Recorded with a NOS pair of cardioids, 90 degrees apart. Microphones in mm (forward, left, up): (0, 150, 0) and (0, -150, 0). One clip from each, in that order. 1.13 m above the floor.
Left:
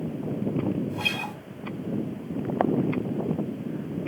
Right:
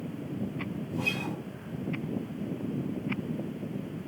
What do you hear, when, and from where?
0.9 s a guitar: 60° left, 1.3 m